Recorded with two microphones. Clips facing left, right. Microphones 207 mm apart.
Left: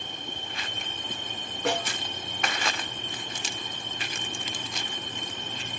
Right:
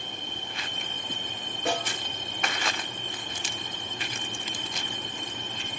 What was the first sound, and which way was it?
A snare drum, 80° left.